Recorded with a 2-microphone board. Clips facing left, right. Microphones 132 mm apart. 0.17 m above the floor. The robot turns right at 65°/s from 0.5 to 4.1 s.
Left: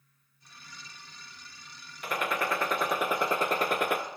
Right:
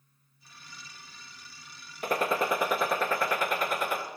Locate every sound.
2.0 s a gunshot: 50° right, 0.6 m; by 4.0 s 75° left, 0.6 m